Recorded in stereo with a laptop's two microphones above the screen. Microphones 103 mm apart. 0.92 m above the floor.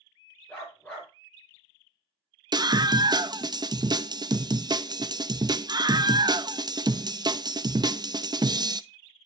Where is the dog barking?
15° left (ahead or behind), 5.5 m.